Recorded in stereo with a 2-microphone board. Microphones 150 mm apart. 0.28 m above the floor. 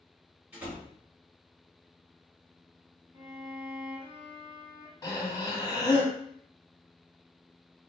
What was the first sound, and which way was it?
A door slam, 10° right (ahead or behind).